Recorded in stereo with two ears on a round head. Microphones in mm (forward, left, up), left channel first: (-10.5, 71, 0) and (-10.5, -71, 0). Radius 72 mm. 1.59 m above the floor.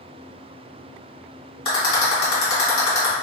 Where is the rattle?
40° left (ahead or behind), 1.8 m.